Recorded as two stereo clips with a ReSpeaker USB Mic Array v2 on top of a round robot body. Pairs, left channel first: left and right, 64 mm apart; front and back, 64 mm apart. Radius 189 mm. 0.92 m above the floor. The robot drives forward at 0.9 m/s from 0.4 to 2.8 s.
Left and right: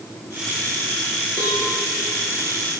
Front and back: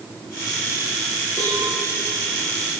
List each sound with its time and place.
1.4 s a cowbell: 45° right, 5.5 m; by 1.6 s 50° right, 5.5 m